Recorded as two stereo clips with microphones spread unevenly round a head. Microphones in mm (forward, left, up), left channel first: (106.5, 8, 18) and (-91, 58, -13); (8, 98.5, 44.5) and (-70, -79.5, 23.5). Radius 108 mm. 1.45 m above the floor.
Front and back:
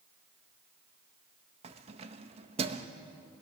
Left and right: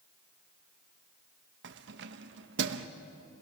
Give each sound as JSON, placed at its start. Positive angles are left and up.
{"t": 1.6, "sound": "keys jangling", "azimuth_deg": -130, "distance_m": 0.9}